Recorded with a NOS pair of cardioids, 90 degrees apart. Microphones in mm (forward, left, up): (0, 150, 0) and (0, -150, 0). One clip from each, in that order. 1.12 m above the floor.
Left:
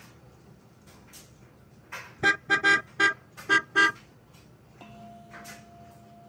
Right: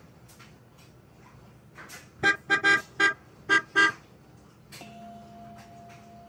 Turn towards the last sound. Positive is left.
turn(degrees=-15)